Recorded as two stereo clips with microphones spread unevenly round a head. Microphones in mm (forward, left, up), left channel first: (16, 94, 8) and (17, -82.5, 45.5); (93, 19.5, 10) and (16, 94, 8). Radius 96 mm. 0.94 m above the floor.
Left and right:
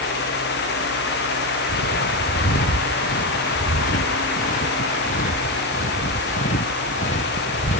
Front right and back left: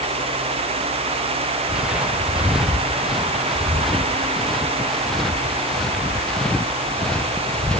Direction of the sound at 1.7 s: 55° left.